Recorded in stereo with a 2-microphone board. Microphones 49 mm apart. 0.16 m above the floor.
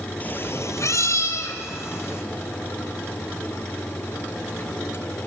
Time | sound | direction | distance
0.2 | a cat meowing | 30° left (ahead or behind) | 0.7 m